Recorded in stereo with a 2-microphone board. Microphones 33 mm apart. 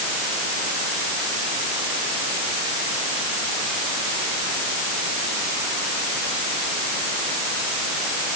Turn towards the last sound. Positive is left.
No sound to turn to.